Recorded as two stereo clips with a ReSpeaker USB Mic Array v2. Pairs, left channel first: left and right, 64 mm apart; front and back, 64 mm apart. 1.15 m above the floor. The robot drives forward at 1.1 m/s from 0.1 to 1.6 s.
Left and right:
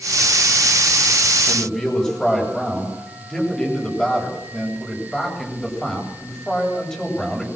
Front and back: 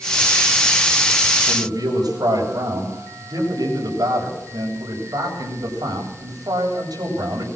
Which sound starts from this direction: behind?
A man speaking, at 1.5 s.